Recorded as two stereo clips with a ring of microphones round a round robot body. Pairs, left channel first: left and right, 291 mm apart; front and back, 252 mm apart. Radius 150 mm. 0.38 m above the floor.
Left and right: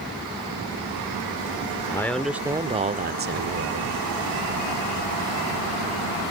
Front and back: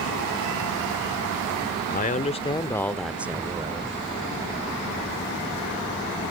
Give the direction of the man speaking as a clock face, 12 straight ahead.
11 o'clock.